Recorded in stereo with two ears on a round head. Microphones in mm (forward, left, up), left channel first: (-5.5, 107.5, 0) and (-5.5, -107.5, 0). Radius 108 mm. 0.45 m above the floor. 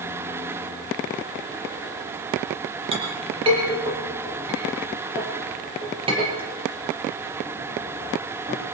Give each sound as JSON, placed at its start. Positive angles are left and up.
{"t": 2.9, "sound": "a clink", "side_deg": -25, "distance_m": 7.0}